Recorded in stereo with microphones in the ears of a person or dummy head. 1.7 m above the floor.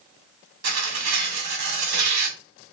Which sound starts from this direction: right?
Tearing paper, at 0.6 s.